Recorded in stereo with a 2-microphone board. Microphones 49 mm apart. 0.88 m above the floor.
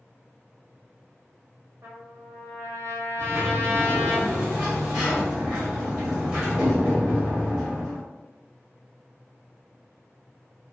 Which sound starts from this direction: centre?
A sliding door, at 3.2 s.